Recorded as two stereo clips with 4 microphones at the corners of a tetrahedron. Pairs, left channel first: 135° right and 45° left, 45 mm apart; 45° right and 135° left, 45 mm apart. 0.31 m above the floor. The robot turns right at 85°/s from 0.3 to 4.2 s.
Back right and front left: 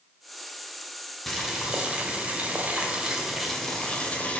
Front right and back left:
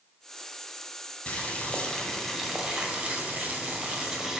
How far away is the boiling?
About 1.3 m.